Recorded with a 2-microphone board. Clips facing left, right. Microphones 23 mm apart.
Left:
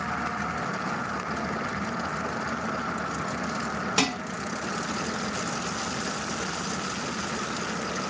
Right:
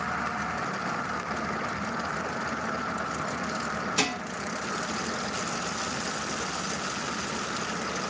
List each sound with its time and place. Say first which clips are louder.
4.0 s dishes clattering: left 3 dB; 40° left (ahead or behind), 1.0 m